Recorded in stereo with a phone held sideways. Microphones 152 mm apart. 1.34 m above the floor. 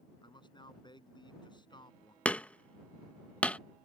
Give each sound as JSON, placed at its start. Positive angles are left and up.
{"t": 0.2, "sound": "a man speaking", "side_deg": 30}
{"t": 2.2, "sound": "hammering", "side_deg": 10}